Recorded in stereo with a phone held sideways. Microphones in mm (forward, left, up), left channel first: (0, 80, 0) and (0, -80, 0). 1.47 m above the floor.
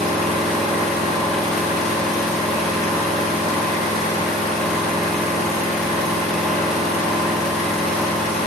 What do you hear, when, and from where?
0.0 s an engine running: centre (ahead or behind), 0.9 m